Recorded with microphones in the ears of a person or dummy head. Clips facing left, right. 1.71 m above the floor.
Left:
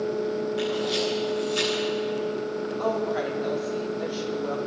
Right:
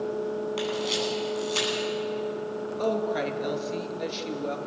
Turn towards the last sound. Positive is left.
turn(degrees=-30)  # may be behind; listen again after turning